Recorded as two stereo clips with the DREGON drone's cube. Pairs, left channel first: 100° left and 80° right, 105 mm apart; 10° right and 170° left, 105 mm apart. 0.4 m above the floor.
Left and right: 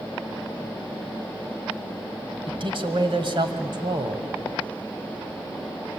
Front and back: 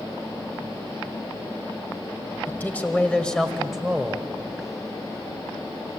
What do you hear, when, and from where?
2.5 s a man speaking: 75° right, 2.5 m; by 4.3 s 110° right, 2 m